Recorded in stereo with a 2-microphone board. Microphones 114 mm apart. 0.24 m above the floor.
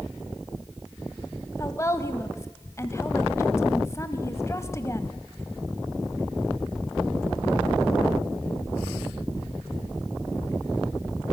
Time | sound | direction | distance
1.6 | a woman speaking | 25° left (ahead or behind) | 1.2 m